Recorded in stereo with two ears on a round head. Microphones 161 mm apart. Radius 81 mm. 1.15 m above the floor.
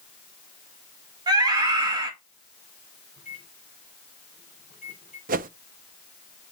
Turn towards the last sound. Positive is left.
turn(degrees=-50)  # may be behind; listen again after turning